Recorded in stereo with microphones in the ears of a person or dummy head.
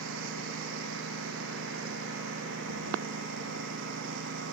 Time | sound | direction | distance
0.0 | a lawn mower | 75° right (ahead or behind) | ?